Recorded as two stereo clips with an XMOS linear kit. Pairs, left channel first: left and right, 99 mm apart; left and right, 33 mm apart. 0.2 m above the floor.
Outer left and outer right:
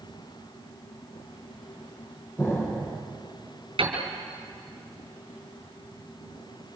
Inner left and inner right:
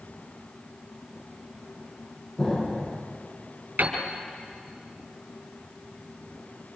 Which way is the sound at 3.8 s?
65° right (ahead or behind).